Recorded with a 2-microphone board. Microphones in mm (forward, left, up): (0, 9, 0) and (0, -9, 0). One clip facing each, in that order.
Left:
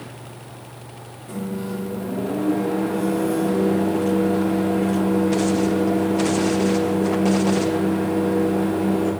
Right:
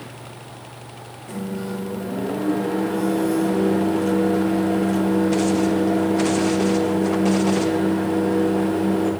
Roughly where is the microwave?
Right.